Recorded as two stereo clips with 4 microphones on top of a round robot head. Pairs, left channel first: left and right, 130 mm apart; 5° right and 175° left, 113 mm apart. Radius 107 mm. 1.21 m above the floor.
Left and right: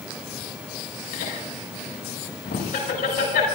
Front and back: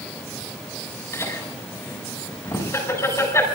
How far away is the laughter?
About 7 m.